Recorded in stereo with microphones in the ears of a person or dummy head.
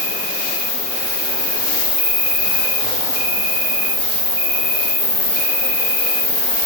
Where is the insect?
15° right (ahead or behind), 0.8 m.